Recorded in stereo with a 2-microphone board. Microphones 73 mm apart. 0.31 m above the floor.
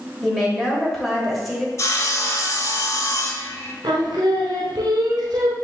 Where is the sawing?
45° left (ahead or behind), 0.5 m.